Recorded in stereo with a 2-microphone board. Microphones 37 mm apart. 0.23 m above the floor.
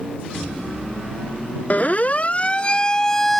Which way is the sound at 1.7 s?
45° left (ahead or behind).